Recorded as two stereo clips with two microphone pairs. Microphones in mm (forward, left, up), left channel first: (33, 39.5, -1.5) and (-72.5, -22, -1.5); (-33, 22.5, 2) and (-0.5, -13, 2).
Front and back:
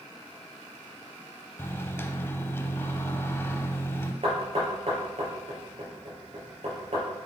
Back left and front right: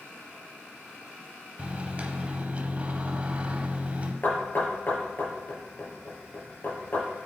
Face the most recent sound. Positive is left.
turn(degrees=180)